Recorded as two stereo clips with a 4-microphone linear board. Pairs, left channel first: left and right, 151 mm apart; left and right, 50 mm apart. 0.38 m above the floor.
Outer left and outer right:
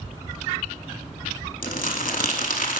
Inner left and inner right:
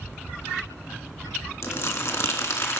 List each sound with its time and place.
1.6 s crumpling: 65° left (ahead or behind), 0.6 m